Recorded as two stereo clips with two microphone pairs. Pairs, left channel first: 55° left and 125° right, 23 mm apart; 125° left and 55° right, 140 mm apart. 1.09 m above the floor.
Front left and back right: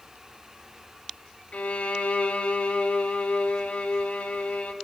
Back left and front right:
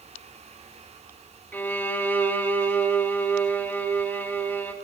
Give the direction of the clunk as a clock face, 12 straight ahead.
No clunk in this recording.